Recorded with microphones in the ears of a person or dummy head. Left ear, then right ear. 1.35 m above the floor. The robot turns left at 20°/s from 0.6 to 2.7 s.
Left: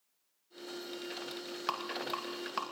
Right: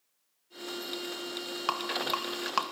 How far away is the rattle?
About 2.0 m.